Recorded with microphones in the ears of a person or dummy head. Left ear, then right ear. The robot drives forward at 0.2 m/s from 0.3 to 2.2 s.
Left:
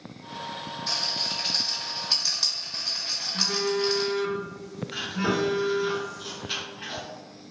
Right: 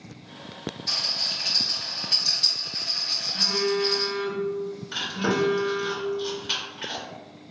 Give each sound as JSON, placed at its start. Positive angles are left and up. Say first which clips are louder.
{"t": 0.9, "sound": "a rattle", "louder": "right 2 dB", "side_deg": 60, "distance_m": 1.7}
{"t": 3.3, "sound": "a phone buzzing", "louder": "right 2 dB", "side_deg": 40, "distance_m": 0.5}
{"t": 4.9, "sound": "chewing", "louder": "right 1 dB", "side_deg": -30, "distance_m": 0.9}